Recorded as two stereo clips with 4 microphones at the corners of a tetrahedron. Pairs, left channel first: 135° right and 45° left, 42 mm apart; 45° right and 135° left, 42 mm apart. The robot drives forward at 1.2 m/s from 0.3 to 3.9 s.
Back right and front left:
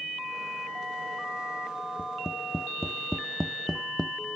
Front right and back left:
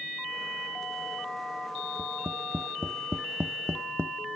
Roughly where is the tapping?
Behind left.